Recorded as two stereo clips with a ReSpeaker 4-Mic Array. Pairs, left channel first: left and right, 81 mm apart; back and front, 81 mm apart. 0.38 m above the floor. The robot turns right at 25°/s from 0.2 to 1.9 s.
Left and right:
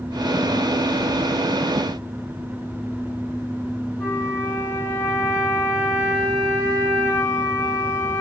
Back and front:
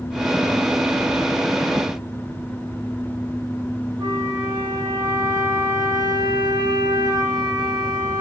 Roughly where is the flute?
Ahead left.